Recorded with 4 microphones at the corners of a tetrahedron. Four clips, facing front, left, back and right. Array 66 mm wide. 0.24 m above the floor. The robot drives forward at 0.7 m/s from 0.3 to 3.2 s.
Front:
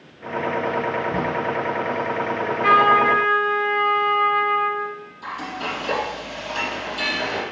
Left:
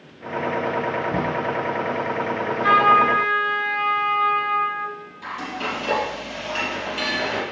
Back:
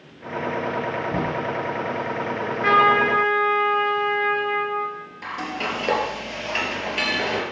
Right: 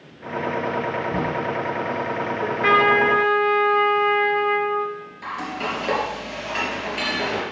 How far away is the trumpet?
About 3 m.